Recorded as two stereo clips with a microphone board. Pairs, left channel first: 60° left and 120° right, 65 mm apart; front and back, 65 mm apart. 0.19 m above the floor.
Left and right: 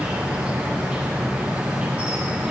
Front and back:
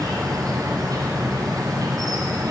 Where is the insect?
170° left, 2.5 m.